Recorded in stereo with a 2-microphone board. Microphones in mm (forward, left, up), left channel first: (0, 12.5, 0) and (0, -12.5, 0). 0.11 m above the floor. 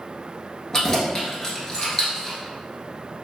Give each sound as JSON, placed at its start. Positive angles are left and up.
{"t": 0.7, "sound": "keys jangling", "side_deg": 20, "distance_m": 1.1}